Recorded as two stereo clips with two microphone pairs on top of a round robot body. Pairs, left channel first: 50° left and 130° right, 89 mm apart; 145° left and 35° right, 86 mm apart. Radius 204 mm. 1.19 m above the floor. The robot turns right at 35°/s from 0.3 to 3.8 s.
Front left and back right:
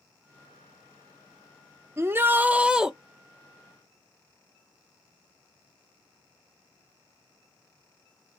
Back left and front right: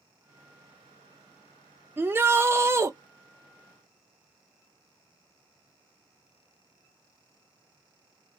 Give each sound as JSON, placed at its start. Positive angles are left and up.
{"t": 2.0, "sound": "a shout", "azimuth_deg": -70, "distance_m": 0.6}